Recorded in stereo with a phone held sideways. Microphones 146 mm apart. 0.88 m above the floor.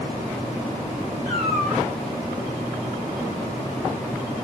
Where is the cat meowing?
25° left (ahead or behind), 5 m.